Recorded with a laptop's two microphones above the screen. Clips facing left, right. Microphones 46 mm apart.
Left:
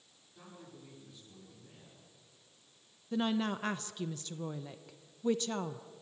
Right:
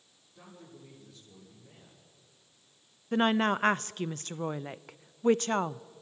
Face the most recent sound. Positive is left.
turn(degrees=-50)  # may be behind; listen again after turning